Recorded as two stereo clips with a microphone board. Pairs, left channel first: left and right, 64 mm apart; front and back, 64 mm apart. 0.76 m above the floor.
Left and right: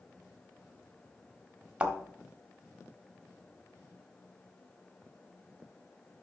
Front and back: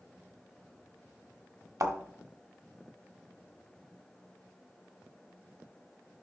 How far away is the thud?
About 1.3 m.